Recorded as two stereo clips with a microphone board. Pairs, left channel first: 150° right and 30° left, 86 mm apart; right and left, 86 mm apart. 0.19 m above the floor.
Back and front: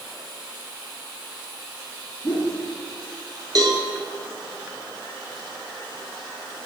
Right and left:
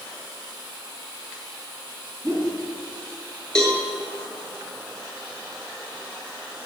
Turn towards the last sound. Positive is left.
turn(degrees=-10)